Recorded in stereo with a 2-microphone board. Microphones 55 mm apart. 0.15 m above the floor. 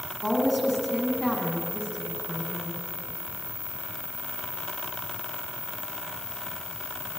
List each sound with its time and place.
0.2 s a woman speaking: centre (ahead or behind), 7.5 m